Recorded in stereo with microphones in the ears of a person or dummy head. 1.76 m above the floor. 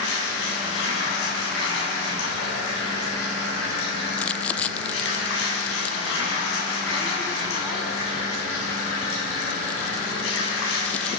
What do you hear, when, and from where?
0.0 s running water: 75° left (ahead or behind), 9 m
4.1 s crumpling: 10° left (ahead or behind), 0.6 m